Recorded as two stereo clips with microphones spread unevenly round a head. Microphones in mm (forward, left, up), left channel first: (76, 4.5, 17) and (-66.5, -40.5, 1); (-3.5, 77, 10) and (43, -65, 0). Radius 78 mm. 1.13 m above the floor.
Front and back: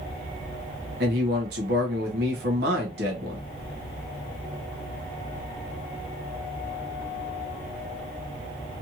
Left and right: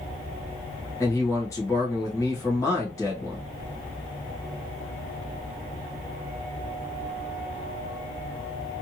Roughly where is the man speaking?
Behind.